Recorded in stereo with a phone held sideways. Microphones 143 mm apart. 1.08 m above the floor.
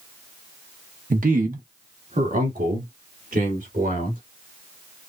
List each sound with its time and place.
1.1 s a man speaking: 70° right (ahead or behind), 1.0 m; by 4.2 s 75° right (ahead or behind), 3 m